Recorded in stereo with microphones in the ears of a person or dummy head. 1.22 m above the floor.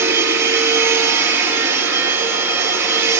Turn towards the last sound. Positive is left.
turn(degrees=-10)  # may be behind; listen again after turning